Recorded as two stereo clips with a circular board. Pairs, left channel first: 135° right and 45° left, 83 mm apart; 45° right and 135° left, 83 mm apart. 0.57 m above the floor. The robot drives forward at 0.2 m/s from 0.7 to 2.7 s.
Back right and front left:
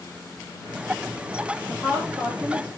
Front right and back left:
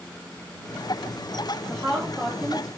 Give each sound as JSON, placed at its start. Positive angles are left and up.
{"t": 1.7, "sound": "a woman speaking", "azimuth_deg": 75, "distance_m": 1.4}